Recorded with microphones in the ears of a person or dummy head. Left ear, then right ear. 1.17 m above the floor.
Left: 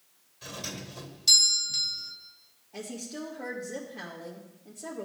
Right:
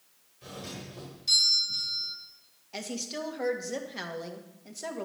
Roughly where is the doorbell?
Left.